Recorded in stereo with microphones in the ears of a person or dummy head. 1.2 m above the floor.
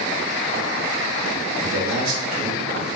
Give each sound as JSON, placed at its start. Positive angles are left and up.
{"t": 1.6, "sound": "a man speaking", "side_deg": -80, "distance_m": 0.9}